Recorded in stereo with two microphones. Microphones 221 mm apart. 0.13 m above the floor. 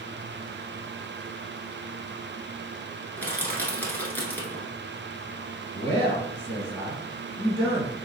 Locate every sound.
3.2 s crushing: 10° left (ahead or behind), 0.8 m
5.7 s a man speaking: 5° left (ahead or behind), 1.9 m